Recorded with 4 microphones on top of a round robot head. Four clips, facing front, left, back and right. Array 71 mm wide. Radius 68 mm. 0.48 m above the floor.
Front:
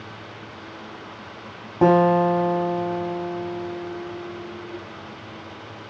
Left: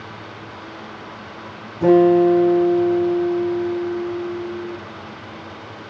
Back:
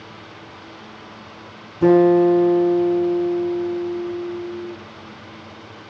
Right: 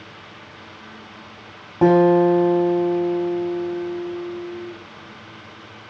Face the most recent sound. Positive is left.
turn(degrees=-40)